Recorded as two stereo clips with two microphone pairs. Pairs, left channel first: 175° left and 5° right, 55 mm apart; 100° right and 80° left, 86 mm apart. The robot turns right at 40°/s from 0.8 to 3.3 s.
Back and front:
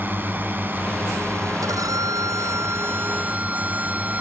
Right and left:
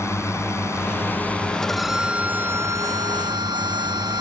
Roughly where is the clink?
No clink in this recording.